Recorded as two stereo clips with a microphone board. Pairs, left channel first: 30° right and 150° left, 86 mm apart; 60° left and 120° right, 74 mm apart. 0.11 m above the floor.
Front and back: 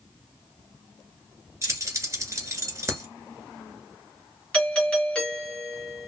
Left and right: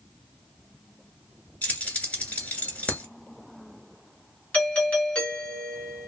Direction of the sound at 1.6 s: 120° left.